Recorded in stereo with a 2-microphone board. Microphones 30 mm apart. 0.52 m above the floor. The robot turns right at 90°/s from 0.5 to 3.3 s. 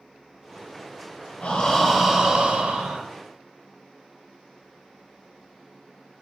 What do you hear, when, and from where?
1.4 s breathing: 135° left, 0.7 m; by 3.0 s 80° right, 0.7 m